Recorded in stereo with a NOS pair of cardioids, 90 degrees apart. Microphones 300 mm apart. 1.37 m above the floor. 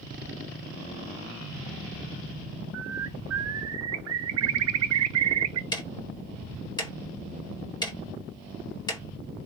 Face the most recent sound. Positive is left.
turn(degrees=15)